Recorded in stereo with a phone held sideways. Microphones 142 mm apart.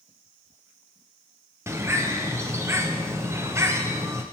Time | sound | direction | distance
1.7 | a bird | 20° right (ahead or behind) | 0.5 m